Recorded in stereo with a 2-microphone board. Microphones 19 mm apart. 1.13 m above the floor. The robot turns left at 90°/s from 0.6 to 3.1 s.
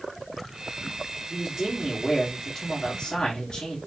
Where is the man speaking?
105° right, 1.8 m; by 3.8 s 95° left, 1.8 m.